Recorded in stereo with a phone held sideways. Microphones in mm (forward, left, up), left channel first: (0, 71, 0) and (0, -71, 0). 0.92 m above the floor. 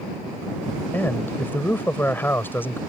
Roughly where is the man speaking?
Centre.